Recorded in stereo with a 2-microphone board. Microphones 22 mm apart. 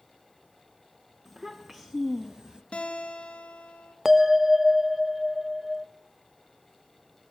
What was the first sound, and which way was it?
A child speaking, 30° right (ahead or behind).